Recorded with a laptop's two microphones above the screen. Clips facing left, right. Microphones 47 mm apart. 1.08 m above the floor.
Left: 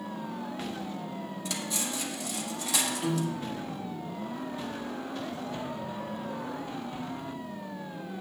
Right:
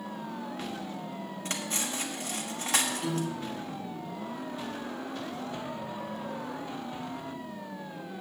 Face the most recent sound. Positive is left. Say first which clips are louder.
# left 2 dB
turn(degrees=25)  # may be behind; listen again after turning